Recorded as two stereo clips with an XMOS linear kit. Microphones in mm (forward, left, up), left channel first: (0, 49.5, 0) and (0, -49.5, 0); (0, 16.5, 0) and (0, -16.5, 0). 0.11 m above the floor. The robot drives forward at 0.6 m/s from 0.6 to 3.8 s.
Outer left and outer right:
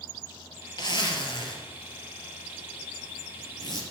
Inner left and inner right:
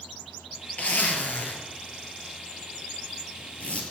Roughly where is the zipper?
Left.